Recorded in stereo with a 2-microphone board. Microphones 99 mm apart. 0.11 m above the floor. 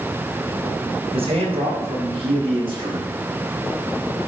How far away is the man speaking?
About 5.5 m.